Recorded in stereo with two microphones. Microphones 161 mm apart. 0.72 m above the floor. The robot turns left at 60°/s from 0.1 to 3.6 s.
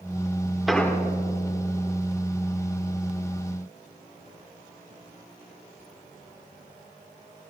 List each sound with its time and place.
0.7 s an explosion: centre (ahead or behind), 1.0 m; by 1.0 s 20° left (ahead or behind), 1.0 m